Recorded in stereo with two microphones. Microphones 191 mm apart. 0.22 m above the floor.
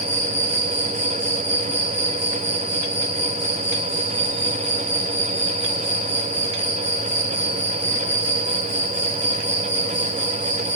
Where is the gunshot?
I don't hear a gunshot.